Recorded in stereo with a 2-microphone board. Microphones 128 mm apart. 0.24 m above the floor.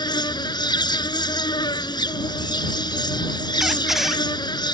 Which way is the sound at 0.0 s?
35° left (ahead or behind).